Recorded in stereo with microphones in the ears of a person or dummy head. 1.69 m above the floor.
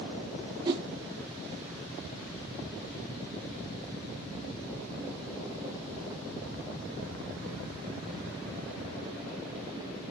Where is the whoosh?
25° right (ahead or behind), 0.8 m.